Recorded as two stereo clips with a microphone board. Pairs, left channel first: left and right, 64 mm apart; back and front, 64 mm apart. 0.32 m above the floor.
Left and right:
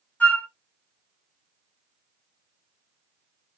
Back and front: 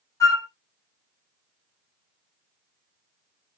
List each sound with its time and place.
0.2 s a flute: 150° left, 1.3 m